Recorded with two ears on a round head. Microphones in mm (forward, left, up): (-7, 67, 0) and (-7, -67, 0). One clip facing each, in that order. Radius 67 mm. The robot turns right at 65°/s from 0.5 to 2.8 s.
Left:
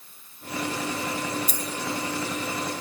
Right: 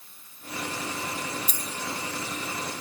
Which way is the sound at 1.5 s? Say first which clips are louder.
Left 5 dB; 40° left (ahead or behind).